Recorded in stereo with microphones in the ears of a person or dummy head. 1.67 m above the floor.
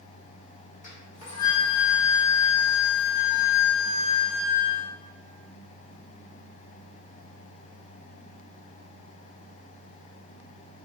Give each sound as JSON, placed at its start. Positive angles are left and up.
{"t": 0.8, "sound": "a flute", "side_deg": 45, "distance_m": 1.1}